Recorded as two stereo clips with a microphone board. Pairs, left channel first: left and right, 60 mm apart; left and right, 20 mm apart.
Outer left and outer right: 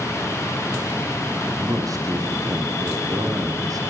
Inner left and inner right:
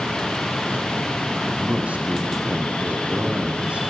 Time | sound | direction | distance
1.4 | a man speaking | 80° right | 9 m